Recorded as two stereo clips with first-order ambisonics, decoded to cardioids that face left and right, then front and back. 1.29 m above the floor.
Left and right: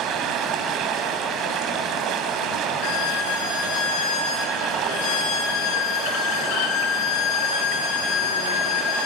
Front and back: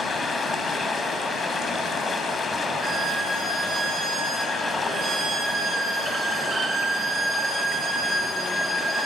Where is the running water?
75° right, 1.7 m.